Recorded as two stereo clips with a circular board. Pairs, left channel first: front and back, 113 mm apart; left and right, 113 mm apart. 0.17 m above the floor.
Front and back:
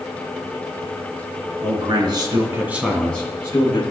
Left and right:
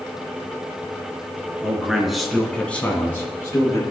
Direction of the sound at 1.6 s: 170° right.